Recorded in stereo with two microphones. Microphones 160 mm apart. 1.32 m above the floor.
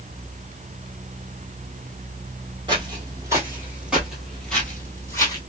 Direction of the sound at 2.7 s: 30° right (ahead or behind).